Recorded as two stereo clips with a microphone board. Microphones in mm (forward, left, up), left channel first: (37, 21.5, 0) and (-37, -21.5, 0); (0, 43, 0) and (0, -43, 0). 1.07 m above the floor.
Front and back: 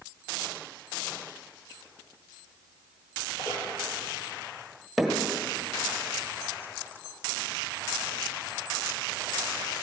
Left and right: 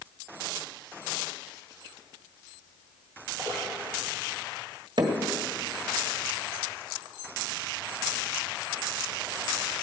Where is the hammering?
60° right, 1.5 m.